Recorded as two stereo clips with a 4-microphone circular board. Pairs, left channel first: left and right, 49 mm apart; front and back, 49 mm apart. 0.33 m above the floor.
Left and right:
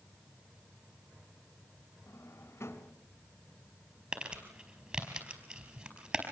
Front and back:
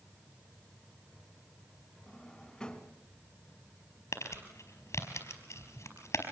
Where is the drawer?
75° left, 2.0 m.